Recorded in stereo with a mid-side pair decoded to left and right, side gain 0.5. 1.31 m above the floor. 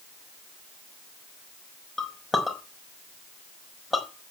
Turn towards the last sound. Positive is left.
turn(degrees=20)